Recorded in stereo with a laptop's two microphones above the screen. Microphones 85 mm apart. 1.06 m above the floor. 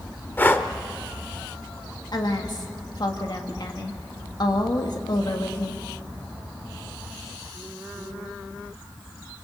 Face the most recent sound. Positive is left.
turn(degrees=55)  # may be behind; listen again after turning